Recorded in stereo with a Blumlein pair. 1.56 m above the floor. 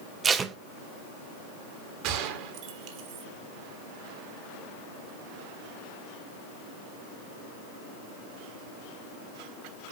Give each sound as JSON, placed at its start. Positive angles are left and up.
{"t": 0.2, "sound": "tape being pulled", "azimuth_deg": -20, "distance_m": 0.8}
{"t": 2.0, "sound": "a gunshot", "azimuth_deg": -45, "distance_m": 1.6}